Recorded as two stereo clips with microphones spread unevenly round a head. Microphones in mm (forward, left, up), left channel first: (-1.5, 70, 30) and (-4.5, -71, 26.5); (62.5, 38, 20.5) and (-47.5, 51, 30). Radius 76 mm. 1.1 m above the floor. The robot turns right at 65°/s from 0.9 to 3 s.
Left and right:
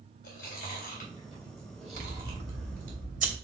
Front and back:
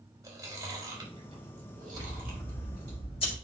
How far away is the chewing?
About 4 m.